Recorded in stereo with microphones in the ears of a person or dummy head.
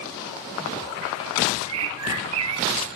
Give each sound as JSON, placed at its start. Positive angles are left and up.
{"t": 1.6, "sound": "a bird", "side_deg": -70, "distance_m": 0.8}